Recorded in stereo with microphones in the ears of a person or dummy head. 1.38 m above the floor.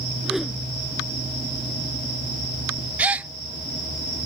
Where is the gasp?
5° right (ahead or behind).